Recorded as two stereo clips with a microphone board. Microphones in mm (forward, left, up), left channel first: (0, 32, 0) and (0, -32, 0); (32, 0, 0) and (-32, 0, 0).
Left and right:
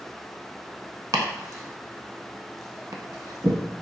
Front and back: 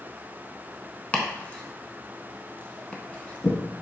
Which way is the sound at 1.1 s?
65° right.